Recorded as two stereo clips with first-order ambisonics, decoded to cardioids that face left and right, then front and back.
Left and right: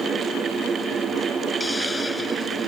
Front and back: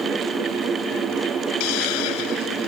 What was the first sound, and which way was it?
A hiss, 10° left.